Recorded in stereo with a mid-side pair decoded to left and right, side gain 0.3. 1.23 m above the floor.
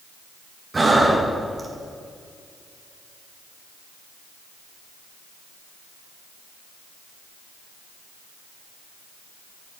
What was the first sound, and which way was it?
Breathing, 40° right.